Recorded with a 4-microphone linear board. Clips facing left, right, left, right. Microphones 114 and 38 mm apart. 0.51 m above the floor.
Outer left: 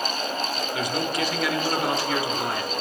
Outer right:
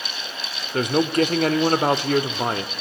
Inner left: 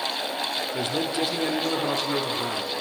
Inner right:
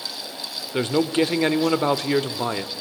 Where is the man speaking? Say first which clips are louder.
Outer right 10 dB, inner right 9 dB; 50° right (ahead or behind), 1.5 m.